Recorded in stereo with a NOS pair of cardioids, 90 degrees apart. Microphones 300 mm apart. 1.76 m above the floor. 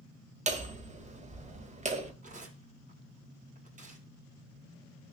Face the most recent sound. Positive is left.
turn(degrees=-30)